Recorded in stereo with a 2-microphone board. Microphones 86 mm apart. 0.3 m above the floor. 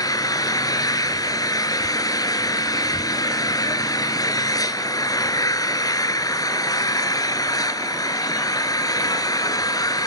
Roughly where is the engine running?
Left.